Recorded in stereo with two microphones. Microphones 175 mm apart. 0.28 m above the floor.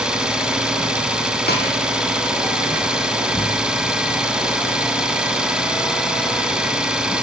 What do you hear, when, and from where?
0.0 s an engine running: 5° right (ahead or behind), 1.9 m
1.5 s a snare drum: 65° left (ahead or behind), 3 m